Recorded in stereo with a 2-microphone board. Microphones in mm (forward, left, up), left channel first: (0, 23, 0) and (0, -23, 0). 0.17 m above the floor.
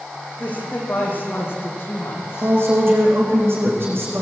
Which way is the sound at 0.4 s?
35° left (ahead or behind).